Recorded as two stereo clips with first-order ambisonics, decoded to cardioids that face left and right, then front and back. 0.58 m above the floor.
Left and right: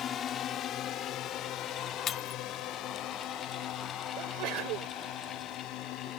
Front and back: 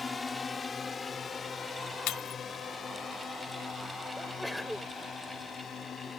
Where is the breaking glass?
35° left.